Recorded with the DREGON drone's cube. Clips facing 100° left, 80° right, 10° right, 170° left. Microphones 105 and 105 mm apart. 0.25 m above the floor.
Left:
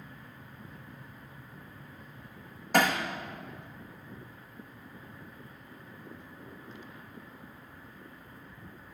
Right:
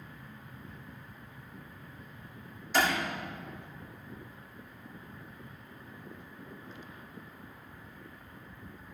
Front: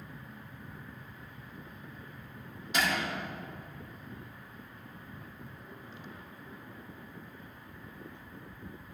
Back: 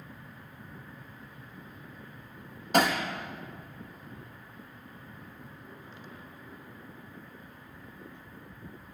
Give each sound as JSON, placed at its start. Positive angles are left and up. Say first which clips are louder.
{"t": 2.7, "sound": "hammering", "louder": "left 3 dB, back 6 dB", "azimuth_deg": 130, "distance_m": 4.0}